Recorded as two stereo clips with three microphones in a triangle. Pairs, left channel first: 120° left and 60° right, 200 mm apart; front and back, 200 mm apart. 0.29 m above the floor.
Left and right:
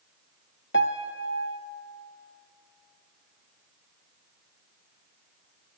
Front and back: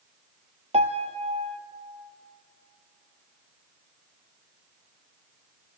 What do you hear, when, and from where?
0.7 s a piano: 125° left, 0.9 m